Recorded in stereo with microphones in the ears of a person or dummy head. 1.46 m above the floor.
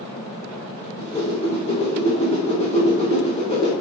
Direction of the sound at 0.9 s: 25° left (ahead or behind).